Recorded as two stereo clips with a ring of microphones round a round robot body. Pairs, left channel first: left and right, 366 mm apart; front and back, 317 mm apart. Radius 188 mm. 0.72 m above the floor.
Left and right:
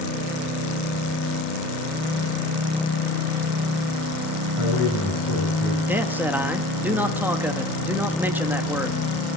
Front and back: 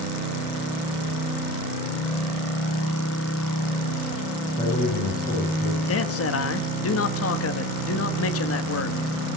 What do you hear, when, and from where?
4.6 s a man speaking: 60° left, 6.5 m
5.9 s a man speaking: 5° right, 1.4 m